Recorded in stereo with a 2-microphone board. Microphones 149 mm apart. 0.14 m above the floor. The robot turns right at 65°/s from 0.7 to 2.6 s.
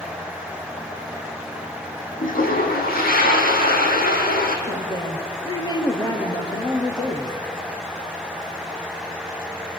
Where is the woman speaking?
25° left (ahead or behind), 3.5 m.